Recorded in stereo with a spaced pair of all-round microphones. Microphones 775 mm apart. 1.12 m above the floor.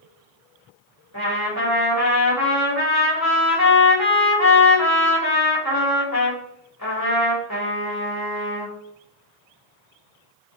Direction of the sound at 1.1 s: 20° left (ahead or behind).